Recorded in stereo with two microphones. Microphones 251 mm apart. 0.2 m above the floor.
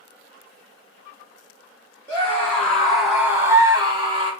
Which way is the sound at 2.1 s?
10° left (ahead or behind).